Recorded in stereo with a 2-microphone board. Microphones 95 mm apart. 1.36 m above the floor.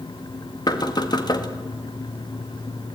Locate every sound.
0.7 s knocking: 50° left (ahead or behind), 1.8 m